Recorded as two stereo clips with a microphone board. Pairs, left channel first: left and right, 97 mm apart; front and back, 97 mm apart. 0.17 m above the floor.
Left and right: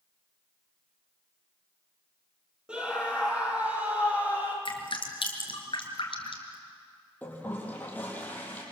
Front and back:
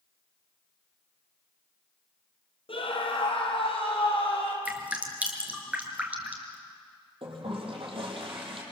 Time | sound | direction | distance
2.7 | a scream | 10° right | 4.5 m
4.7 | dripping | 105° left | 3 m
7.2 | a toilet flushing | 165° left | 5 m